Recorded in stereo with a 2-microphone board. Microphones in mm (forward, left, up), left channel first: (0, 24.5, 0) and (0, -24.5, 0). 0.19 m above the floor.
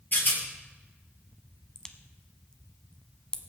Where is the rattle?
45° left (ahead or behind), 3.5 m.